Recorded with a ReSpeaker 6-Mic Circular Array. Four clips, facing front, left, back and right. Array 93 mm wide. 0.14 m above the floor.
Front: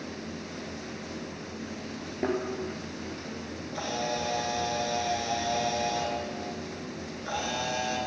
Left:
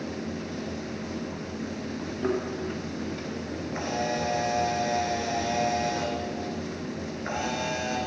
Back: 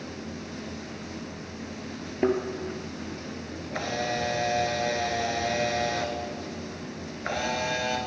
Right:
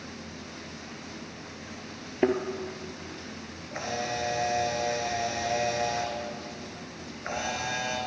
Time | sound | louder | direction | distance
2.2 | a thud | right 3 dB, back 5 dB | 110° right | 1.3 m
3.7 | a camera shutter | left 2 dB, back 2 dB | 175° right | 1.6 m